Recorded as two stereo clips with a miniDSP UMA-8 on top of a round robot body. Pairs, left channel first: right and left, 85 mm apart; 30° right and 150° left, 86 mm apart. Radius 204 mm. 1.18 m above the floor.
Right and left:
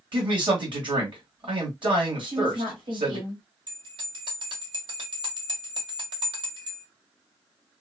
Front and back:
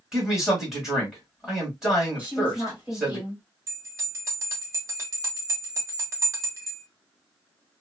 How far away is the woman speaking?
About 1.6 m.